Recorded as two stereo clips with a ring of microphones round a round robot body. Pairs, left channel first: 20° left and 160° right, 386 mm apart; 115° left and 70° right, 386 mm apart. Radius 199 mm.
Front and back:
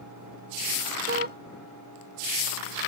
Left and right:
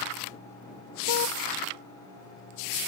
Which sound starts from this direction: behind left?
A car horn, at 1.1 s.